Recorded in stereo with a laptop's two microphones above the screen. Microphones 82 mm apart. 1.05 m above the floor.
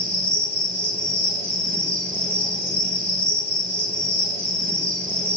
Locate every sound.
0.0 s an insect: 25° left (ahead or behind), 3 m